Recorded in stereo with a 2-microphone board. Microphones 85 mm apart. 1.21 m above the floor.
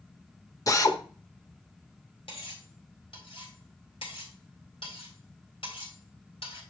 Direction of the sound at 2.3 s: 75° left (ahead or behind).